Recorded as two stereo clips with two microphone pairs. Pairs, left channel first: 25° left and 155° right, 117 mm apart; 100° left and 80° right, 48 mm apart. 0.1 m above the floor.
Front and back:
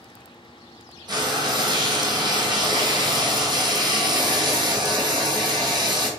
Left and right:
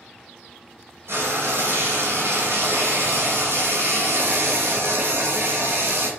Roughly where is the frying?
Right.